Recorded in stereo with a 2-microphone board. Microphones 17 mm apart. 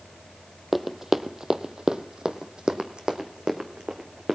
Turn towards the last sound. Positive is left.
turn(degrees=-70)  # may be behind; listen again after turning